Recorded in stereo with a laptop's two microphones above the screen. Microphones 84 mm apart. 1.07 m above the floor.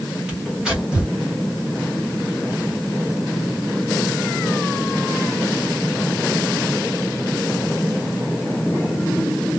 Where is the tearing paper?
10° right (ahead or behind), 1.3 m.